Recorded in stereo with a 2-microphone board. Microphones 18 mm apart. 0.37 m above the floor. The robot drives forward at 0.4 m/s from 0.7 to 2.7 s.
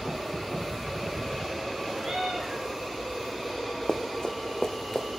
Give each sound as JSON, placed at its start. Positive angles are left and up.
{"t": 2.0, "sound": "a cat meowing", "side_deg": -60, "distance_m": 9.5}
{"t": 3.9, "sound": "running footsteps", "side_deg": 55, "distance_m": 1.1}